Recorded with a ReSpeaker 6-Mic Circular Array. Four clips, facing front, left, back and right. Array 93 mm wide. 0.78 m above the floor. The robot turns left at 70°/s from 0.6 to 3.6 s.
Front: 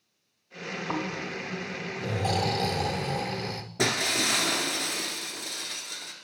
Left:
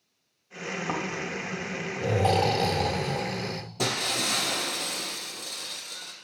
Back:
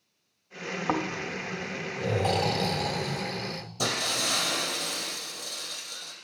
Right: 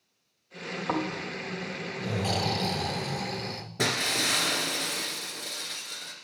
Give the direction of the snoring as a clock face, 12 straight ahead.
6 o'clock.